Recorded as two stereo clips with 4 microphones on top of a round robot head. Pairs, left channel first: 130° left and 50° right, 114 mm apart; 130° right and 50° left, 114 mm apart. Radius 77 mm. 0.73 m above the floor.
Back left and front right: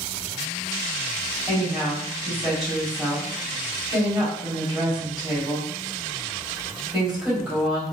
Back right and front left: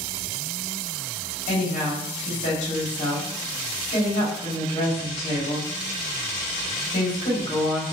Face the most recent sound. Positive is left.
turn(degrees=-135)